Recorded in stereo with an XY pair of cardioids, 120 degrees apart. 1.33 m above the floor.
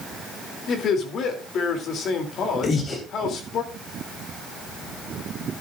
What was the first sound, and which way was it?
A man speaking, 55° left.